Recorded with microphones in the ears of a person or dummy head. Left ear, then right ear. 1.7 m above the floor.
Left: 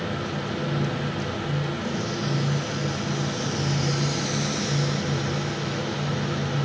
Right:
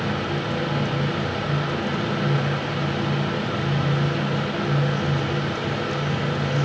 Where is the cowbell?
No cowbell in this recording.